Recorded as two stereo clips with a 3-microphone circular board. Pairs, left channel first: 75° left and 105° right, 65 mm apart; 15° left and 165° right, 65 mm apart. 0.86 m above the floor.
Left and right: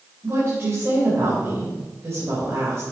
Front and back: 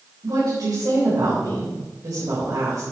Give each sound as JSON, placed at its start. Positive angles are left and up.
{"t": 0.2, "sound": "a woman speaking", "azimuth_deg": -155, "distance_m": 3.5}